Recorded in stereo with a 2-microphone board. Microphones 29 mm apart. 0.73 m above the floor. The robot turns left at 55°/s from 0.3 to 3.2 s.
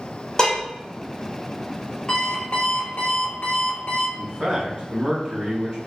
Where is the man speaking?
30° right (ahead or behind), 1.8 m.